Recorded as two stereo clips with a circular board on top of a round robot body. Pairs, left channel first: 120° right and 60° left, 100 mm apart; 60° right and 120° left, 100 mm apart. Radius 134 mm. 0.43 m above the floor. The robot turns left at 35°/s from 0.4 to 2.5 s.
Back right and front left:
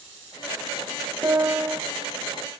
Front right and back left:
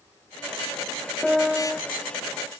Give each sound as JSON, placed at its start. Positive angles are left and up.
{"t": 1.2, "sound": "a piano", "azimuth_deg": 20, "distance_m": 1.4}